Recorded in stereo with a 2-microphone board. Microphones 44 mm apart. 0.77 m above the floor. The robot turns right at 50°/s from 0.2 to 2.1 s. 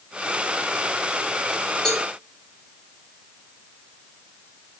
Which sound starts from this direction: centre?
A cowbell, at 1.9 s.